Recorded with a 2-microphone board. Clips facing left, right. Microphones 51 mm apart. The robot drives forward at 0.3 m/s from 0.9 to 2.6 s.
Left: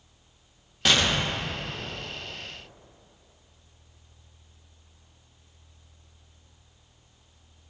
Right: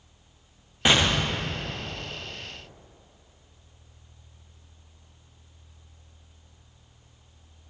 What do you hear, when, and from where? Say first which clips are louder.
0.8 s an explosion: right 1 dB; 20° right (ahead or behind), 0.5 m; by 2.4 s 10° right (ahead or behind), 0.9 m